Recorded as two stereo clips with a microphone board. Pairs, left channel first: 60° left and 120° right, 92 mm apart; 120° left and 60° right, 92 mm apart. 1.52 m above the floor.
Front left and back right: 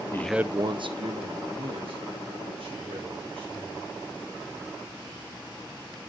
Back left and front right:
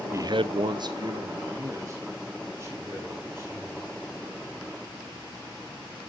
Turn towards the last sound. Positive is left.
turn(degrees=-120)